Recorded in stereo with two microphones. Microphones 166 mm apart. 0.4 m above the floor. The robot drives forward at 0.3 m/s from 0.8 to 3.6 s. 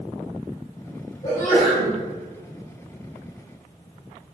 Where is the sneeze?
40° left (ahead or behind), 1.2 m; by 1.9 s 35° left (ahead or behind), 1.3 m.